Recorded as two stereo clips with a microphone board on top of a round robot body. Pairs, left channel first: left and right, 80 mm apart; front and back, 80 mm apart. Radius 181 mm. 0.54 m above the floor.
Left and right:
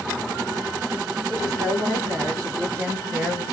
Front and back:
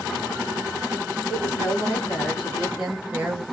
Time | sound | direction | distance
1.3 | a woman speaking | 65° right | 1.9 m